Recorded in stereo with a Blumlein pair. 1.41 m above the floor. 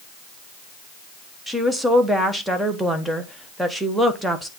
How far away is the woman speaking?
About 1.2 m.